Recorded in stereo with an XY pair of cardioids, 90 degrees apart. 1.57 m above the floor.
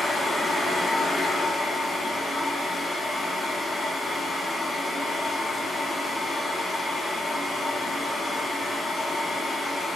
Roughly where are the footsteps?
No footsteps in this recording.